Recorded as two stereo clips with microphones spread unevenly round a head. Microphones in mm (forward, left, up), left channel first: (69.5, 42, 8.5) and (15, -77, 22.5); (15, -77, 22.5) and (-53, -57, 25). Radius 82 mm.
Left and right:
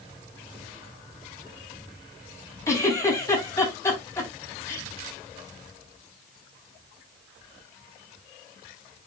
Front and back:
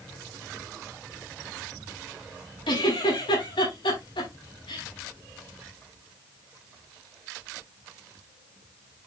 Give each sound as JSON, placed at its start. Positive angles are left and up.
{"t": 2.7, "sound": "a giggle", "azimuth_deg": -5, "distance_m": 5.5}